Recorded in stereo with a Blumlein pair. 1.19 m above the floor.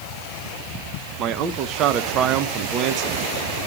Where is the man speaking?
35° right, 0.9 m.